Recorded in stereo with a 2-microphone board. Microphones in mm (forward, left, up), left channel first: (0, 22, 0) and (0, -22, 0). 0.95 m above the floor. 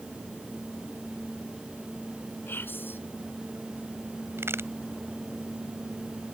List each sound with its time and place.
2.5 s whispering: 60° left (ahead or behind)
4.4 s a crack: 85° right